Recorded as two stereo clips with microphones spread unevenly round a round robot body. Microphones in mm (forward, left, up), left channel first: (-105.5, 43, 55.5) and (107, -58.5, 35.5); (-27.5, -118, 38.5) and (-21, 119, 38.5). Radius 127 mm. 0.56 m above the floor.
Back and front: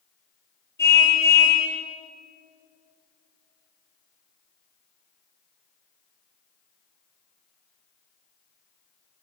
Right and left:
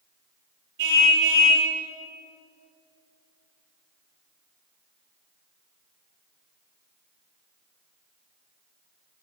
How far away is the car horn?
About 8.5 m.